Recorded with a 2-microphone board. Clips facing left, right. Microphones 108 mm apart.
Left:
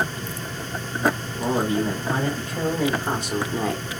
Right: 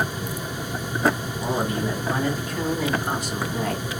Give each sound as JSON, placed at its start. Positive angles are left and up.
{"t": 1.4, "sound": "a man speaking", "side_deg": 30, "distance_m": 2.5}